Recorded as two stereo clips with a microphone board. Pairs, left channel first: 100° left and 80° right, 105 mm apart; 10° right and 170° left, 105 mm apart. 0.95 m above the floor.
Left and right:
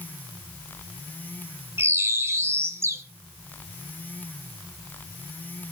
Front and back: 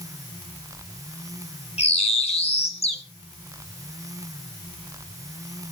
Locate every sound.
1.8 s a bird: 15° right, 1.9 m